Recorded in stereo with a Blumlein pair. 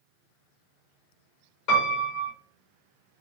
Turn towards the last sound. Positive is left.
turn(degrees=50)